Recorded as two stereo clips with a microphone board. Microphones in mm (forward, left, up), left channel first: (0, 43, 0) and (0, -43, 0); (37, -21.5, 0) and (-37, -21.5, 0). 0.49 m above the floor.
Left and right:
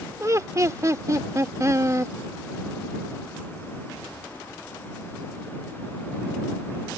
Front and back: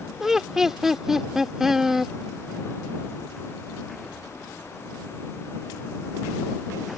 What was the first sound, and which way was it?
Laughter, 100° right.